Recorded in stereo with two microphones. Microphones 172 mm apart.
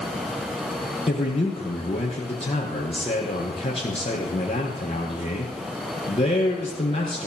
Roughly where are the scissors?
I don't hear scissors.